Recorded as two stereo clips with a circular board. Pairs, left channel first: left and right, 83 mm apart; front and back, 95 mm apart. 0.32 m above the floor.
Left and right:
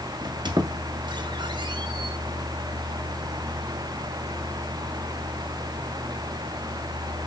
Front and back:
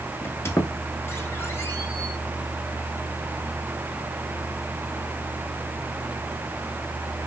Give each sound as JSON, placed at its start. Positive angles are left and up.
{"t": 0.2, "sound": "a squeak", "azimuth_deg": -65, "distance_m": 0.8}